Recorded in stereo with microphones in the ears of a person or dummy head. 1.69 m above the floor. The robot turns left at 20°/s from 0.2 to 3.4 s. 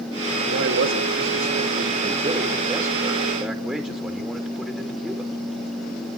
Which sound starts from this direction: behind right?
A man speaking, at 0.4 s.